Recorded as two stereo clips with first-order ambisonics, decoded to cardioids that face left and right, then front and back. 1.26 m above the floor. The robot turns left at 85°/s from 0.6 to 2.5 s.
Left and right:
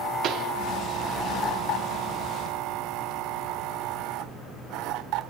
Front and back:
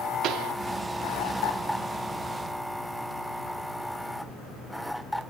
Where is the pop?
135° right, 0.8 m.